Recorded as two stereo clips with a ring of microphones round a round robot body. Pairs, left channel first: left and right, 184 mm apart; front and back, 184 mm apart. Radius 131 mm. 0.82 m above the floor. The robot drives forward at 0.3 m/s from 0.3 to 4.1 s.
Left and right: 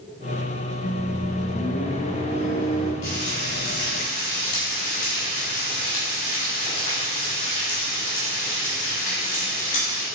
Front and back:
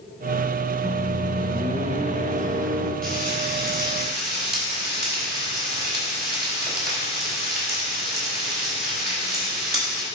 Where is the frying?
145° left, 3.5 m; by 10.1 s 150° left, 3.5 m.